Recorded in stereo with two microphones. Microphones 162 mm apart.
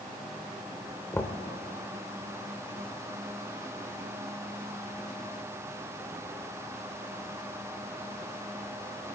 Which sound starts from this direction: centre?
Knocking, at 1.1 s.